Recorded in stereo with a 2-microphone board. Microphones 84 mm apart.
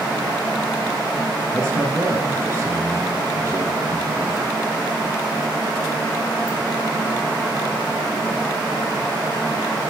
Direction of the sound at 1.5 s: 35° right (ahead or behind).